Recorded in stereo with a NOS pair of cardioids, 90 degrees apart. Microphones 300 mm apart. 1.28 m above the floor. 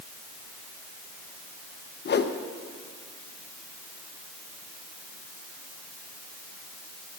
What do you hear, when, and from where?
2.0 s a whoosh: 35° left, 1.0 m